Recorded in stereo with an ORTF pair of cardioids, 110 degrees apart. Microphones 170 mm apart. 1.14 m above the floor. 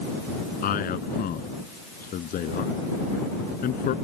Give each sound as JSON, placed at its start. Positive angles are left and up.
{"t": 0.6, "sound": "a man speaking", "azimuth_deg": 60}